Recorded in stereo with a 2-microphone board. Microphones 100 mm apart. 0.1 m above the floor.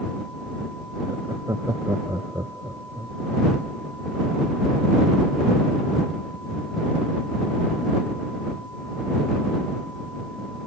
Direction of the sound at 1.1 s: 35° right (ahead or behind).